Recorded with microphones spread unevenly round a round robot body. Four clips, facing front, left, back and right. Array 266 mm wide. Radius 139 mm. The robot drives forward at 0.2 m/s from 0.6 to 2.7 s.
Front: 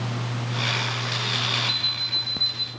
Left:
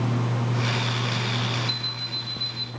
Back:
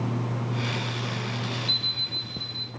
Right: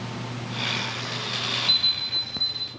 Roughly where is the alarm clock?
Right.